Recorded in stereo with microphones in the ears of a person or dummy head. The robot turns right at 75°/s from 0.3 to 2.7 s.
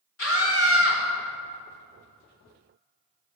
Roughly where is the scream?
Left.